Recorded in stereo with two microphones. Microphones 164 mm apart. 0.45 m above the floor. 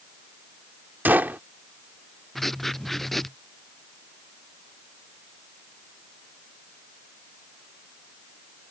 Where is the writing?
Centre (ahead or behind).